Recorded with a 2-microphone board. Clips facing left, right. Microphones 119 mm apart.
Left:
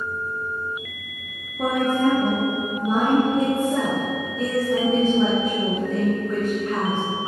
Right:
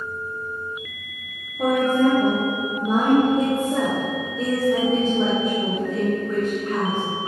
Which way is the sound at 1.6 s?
5° left (ahead or behind).